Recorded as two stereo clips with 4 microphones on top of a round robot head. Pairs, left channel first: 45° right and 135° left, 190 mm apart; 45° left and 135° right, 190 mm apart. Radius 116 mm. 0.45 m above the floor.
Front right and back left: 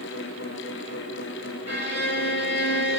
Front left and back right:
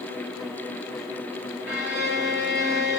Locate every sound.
1.7 s a violin: 145° right, 2.5 m